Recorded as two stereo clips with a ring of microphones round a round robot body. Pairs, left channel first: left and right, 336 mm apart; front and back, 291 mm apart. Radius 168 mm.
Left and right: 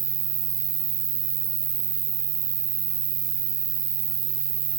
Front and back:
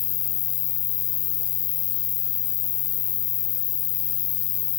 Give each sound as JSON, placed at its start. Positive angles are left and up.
{"t": 0.0, "sound": "an insect", "azimuth_deg": -20, "distance_m": 1.4}